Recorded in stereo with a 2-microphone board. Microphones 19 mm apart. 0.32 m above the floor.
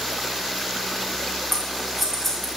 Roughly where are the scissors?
Centre.